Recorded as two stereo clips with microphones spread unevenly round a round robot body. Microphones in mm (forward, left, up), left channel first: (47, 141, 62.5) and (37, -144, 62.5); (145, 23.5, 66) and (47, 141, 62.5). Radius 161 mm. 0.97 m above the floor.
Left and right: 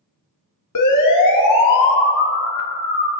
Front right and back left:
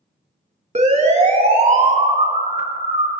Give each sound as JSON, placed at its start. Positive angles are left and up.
{"t": 0.8, "sound": "a siren", "azimuth_deg": 90, "distance_m": 3.5}